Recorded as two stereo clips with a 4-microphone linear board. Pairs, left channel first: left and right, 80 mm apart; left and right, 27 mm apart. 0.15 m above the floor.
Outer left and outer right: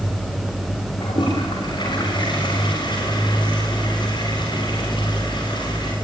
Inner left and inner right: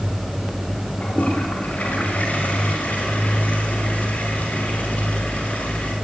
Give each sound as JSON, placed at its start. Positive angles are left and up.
{"t": 1.0, "sound": "a toilet flushing", "side_deg": 65, "distance_m": 8.5}